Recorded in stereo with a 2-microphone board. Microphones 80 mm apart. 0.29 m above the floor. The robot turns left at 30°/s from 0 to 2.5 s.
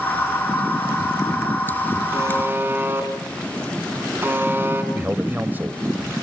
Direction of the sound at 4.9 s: 25° right (ahead or behind).